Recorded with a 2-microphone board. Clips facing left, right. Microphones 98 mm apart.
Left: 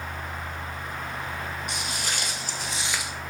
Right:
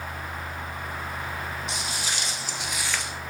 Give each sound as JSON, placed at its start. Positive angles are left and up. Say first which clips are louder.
{"t": 1.7, "sound": "footsteps", "louder": "even", "side_deg": 55, "distance_m": 1.5}